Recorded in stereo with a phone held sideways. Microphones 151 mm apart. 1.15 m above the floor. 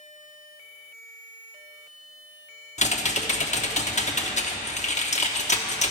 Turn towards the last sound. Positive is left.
turn(degrees=50)  # may be behind; listen again after turning